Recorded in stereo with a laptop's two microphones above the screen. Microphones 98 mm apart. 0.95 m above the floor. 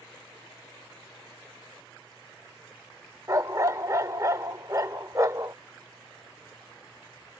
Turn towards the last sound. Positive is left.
turn(degrees=-35)  # may be behind; listen again after turning